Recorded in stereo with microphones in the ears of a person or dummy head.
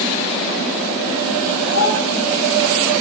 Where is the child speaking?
50° left (ahead or behind), 4.5 m.